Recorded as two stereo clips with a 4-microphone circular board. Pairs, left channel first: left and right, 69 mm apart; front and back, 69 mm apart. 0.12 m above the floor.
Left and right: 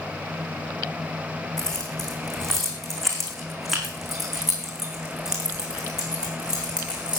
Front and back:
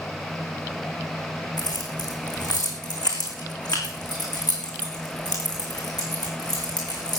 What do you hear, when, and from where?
1.6 s keys jangling: 10° left, 5 m; by 7.2 s 15° right, 7 m